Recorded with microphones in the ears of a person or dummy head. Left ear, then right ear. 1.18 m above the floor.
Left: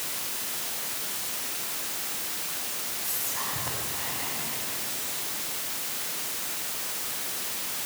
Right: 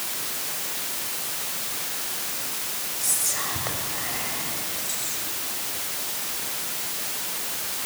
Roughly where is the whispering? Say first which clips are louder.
Right 7 dB; right.